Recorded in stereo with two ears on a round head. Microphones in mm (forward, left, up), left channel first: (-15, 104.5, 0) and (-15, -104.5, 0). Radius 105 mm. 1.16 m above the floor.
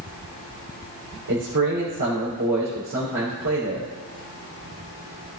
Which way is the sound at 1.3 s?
75° right (ahead or behind).